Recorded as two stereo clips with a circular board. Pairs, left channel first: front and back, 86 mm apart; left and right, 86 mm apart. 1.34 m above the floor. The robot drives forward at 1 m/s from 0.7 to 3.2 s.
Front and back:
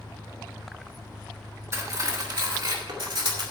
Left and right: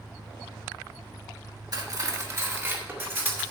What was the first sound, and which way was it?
An engine running, 145° right.